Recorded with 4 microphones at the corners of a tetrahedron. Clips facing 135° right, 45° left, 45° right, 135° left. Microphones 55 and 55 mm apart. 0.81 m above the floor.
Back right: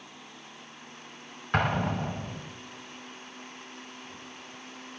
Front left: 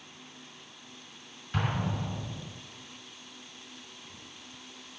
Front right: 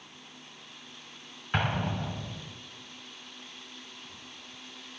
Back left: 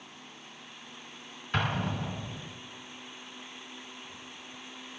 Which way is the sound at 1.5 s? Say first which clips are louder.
Back right 5 dB, front right 1 dB; 115° right.